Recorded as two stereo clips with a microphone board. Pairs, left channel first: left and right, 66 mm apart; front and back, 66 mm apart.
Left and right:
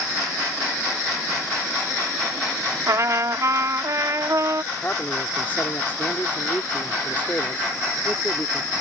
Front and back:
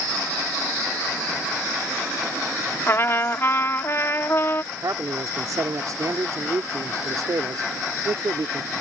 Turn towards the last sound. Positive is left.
turn(degrees=150)